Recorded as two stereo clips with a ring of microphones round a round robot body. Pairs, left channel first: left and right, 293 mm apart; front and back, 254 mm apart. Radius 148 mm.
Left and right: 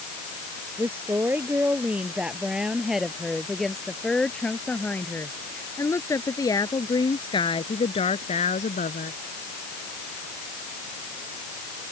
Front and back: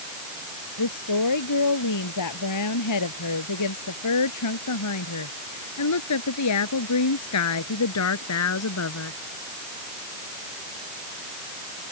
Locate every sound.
0.8 s a woman speaking: 5° right; by 9.2 s 25° left